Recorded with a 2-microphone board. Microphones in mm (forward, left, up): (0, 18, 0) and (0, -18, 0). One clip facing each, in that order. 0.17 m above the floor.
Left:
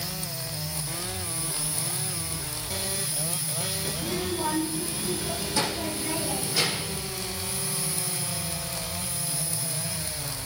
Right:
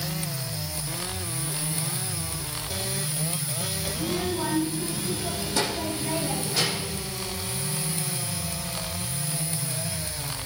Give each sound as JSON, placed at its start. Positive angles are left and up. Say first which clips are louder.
{"t": 3.9, "sound": "a child speaking", "louder": "right 3 dB", "side_deg": -50, "distance_m": 4.0}